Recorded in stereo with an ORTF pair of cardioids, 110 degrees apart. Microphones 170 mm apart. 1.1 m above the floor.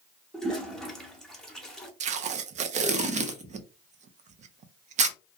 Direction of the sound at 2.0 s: 45° right.